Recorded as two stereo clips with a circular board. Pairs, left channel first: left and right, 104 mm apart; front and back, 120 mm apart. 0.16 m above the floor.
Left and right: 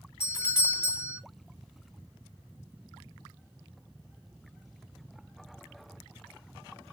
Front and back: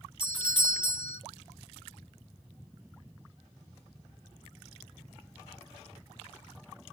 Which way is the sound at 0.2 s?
150° left.